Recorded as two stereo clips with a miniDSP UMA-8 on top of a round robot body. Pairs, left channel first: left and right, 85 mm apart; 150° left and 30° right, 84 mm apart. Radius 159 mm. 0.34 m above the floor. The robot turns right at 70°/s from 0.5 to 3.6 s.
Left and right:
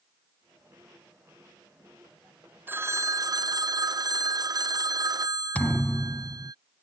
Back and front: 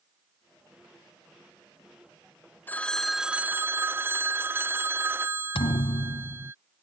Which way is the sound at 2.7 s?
150° right.